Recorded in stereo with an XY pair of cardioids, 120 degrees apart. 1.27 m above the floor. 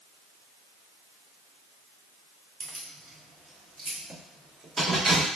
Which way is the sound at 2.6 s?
40° right.